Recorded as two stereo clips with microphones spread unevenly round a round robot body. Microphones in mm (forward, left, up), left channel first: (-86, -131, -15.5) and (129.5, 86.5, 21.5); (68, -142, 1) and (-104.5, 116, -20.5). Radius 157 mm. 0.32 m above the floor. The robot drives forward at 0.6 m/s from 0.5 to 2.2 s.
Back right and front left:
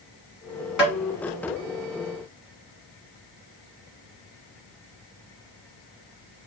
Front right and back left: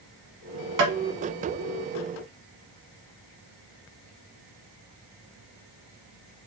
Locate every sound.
0.8 s tapping: 135° left, 1.3 m; by 1.0 s 140° left, 1.4 m